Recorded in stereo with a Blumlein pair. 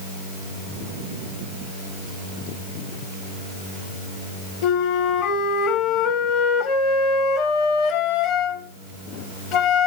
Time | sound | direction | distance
4.6 | a flute | 40° left | 1.3 m